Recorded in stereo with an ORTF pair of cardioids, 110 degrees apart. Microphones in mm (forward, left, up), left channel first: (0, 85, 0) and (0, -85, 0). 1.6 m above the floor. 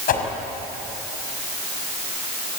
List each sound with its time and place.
0.1 s a whoosh: 60° left, 5 m